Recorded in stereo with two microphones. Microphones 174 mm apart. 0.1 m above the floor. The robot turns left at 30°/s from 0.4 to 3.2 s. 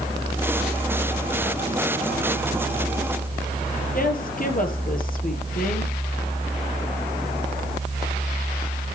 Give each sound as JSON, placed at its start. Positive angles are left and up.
{"t": 3.9, "sound": "a woman speaking", "side_deg": 55, "distance_m": 2.5}